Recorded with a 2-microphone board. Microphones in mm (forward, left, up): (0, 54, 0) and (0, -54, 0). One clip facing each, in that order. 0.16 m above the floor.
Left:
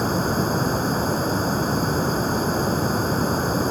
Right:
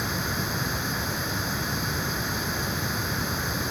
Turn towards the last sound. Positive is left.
turn(degrees=40)  # may be behind; listen again after turning